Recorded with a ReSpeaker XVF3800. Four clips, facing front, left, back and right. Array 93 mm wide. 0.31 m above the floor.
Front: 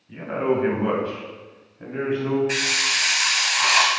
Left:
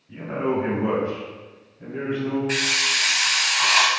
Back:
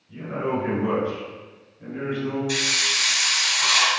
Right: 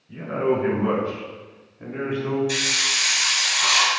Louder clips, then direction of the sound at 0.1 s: Right 2 dB, front 4 dB; 25° left.